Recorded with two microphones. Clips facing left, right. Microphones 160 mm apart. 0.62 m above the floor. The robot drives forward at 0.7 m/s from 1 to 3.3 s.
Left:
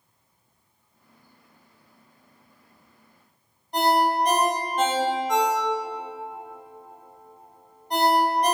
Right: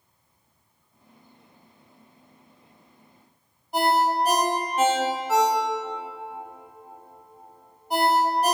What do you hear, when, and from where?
3.7 s a ringtone: 5° right (ahead or behind), 0.6 m